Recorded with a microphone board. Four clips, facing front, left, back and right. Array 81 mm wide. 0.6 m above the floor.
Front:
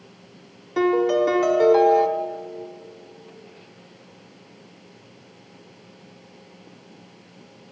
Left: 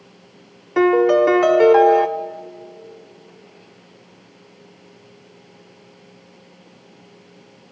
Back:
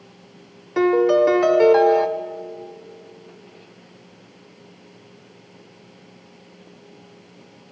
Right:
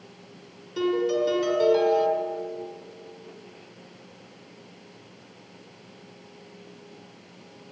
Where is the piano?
110° left, 0.6 m.